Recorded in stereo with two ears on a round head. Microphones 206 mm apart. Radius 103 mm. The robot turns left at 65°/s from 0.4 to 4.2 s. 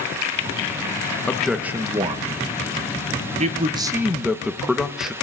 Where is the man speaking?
10° left (ahead or behind), 0.6 m; by 5.1 s centre (ahead or behind), 0.6 m.